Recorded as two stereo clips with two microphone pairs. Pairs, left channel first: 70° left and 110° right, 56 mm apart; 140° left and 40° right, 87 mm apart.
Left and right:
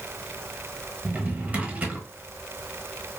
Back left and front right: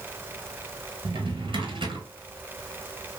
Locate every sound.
1.1 s a drawer: 50° right, 0.8 m